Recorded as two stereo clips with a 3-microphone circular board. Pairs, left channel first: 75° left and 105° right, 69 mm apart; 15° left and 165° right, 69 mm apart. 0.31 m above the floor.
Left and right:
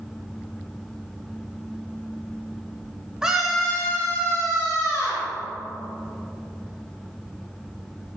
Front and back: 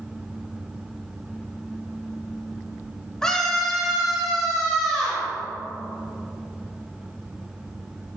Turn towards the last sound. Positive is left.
turn(degrees=120)